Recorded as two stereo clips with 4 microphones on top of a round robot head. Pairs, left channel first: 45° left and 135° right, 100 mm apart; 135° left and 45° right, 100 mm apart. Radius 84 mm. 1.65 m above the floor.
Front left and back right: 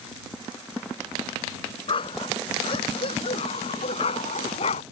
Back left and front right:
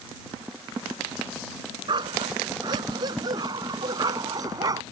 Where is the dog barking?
5° left; by 4.8 s 15° left.